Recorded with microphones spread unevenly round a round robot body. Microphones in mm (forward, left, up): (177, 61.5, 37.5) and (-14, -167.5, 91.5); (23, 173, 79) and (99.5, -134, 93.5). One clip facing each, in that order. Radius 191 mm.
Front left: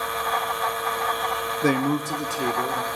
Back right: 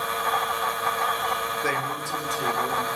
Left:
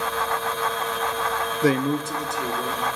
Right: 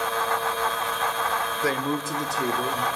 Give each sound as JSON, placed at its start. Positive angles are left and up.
{"t": 1.6, "sound": "a man speaking", "azimuth_deg": 75, "distance_m": 0.7}